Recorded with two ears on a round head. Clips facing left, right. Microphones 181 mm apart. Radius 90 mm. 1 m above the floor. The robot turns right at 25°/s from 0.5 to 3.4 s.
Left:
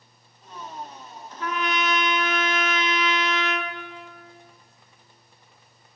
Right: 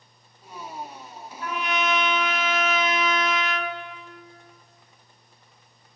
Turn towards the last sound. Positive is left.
turn(degrees=120)